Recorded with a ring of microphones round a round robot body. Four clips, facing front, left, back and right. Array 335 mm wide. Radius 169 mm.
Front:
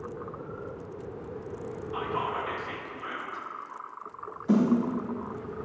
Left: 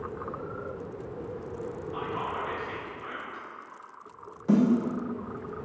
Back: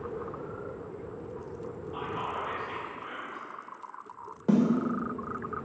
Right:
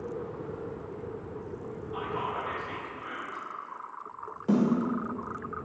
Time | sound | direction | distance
1.9 | whispering | straight ahead | 1.1 m
4.5 | a snare drum | 165° right | 2.0 m